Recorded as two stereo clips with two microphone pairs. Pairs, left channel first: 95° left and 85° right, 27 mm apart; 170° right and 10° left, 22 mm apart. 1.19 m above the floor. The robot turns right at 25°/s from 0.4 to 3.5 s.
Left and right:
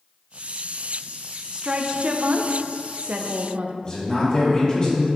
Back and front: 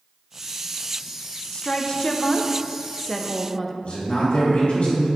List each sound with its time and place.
1.5 s a woman speaking: 130° right, 0.7 m; by 3.7 s 80° right, 0.7 m
3.8 s a man speaking: 160° left, 3 m